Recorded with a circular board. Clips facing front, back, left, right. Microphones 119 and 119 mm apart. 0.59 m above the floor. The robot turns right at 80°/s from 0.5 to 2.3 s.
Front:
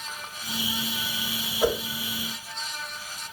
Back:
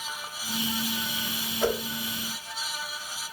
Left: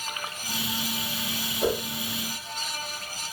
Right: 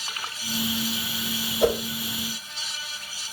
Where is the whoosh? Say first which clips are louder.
Front 2 dB, right 4 dB; 80° right, 0.8 m; by 1.8 s 65° right, 0.8 m.